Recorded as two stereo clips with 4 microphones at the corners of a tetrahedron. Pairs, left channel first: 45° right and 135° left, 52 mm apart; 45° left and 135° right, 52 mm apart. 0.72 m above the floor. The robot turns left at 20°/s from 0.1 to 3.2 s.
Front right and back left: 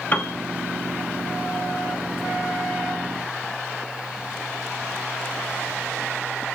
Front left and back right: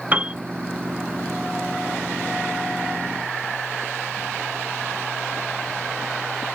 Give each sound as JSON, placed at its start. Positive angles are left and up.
{"t": 0.1, "sound": "a piano", "azimuth_deg": -90, "distance_m": 1.0}